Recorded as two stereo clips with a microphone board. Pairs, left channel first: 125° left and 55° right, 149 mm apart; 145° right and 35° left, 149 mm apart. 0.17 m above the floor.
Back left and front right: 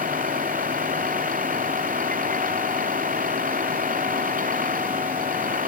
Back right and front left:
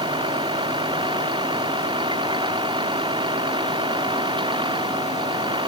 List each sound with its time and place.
0.0 s a vehicle: 25° right